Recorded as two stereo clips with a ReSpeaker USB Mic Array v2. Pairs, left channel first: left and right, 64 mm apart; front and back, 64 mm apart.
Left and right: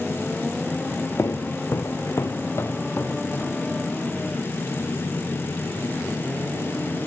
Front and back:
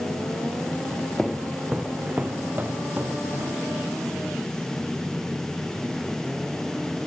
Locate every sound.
1.2 s footsteps: 75° left, 1.0 m; by 3.6 s 140° left, 2 m